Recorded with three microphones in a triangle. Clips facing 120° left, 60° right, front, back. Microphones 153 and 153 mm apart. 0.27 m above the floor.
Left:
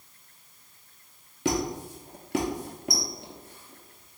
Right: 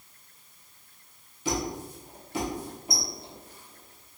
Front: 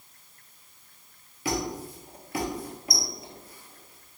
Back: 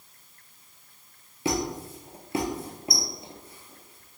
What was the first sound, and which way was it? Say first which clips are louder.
A squeak: left 3 dB, back 2 dB; 120° left.